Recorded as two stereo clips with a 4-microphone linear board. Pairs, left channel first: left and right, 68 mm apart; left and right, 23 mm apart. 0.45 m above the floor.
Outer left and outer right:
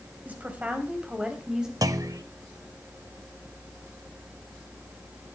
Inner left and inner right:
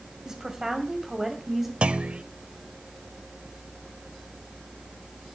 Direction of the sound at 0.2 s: 25° right (ahead or behind).